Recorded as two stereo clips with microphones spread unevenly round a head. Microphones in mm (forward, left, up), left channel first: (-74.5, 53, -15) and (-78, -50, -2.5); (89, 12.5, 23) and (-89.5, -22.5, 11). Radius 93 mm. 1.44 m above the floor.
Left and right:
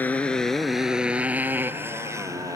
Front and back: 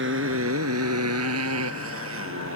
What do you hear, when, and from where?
0.0 s a motorcycle: 165° left; by 2.6 s 150° right